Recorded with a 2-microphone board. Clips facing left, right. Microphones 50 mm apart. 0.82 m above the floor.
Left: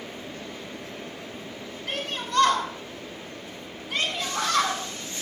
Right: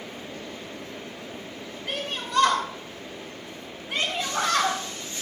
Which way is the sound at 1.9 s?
15° right (ahead or behind).